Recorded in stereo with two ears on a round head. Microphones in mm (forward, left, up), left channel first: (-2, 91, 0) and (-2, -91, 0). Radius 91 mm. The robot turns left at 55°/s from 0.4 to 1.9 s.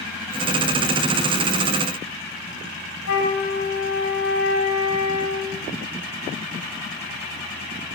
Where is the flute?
80° left, 6 m.